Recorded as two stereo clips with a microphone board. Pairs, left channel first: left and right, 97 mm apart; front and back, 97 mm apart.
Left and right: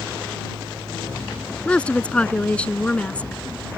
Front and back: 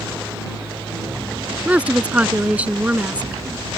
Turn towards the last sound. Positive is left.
turn(degrees=140)